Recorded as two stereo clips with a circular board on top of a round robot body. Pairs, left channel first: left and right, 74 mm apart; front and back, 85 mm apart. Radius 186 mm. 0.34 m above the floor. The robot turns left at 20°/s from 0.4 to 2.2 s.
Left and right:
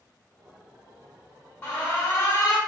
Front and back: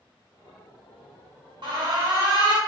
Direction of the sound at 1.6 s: 160° left.